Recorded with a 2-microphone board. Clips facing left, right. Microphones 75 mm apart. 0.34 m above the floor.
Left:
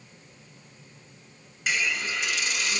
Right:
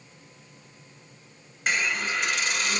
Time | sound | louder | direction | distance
1.7 | a hiss | right 2 dB | 50° right (ahead or behind) | 0.9 m